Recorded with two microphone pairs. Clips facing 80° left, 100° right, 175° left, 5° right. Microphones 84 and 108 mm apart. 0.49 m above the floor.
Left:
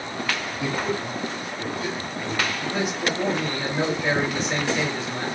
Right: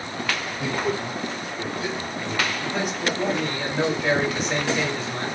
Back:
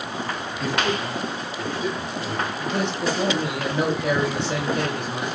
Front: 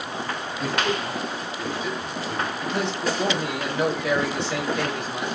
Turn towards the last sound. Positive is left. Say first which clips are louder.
# even, back 2 dB
turn(degrees=175)